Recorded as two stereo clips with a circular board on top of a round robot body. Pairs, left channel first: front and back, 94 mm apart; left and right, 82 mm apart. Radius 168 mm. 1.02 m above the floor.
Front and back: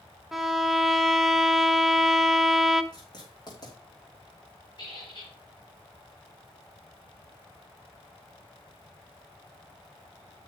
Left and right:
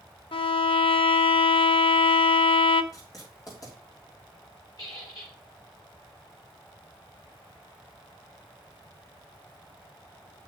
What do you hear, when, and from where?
0.3 s a violin: 90° left, 0.8 m
2.9 s writing: 45° left, 5.5 m
4.8 s a squeak: 45° left, 6 m